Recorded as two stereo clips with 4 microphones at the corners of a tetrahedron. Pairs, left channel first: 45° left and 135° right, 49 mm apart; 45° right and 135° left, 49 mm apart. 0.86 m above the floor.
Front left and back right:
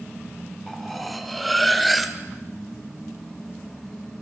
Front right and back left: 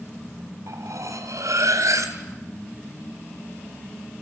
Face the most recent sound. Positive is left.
turn(degrees=135)